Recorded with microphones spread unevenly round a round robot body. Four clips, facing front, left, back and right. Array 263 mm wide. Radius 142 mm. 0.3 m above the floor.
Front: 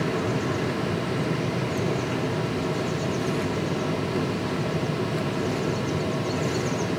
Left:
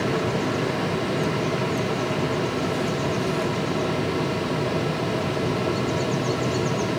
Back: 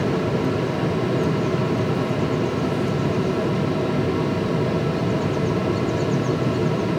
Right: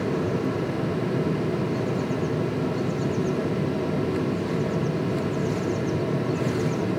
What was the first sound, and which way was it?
Only background noise.